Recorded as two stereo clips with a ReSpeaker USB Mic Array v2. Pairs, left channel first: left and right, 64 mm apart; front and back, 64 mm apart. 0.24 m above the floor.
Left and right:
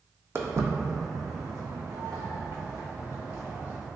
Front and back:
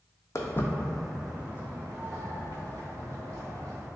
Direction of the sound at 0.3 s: 40° right.